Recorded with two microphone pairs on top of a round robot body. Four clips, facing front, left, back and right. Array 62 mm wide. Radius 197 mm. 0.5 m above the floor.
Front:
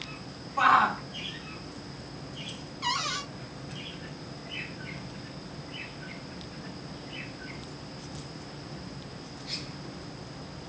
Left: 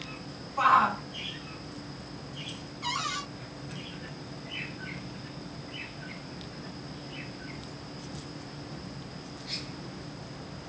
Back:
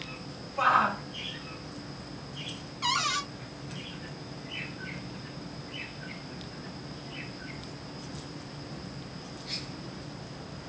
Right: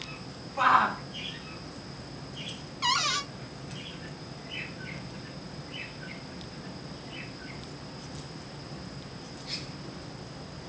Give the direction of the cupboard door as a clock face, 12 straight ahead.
4 o'clock.